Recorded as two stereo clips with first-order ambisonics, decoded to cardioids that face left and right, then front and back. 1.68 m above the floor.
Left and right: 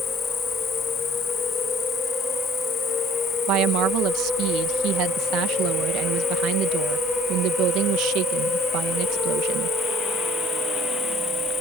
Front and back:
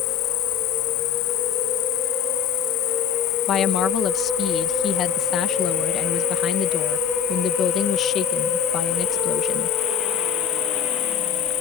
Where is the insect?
20° left.